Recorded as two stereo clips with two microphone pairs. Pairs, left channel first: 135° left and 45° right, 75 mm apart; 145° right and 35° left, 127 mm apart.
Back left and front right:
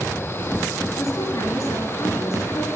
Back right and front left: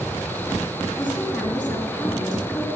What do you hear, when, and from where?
1.0 s a woman speaking: 175° left, 2.5 m